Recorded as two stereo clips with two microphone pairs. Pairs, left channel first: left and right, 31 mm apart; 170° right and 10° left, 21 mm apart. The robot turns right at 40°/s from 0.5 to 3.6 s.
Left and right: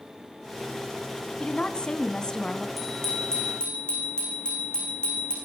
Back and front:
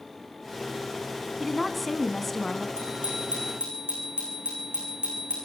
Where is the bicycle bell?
Straight ahead, 10 m; by 5.3 s 30° left, 10 m.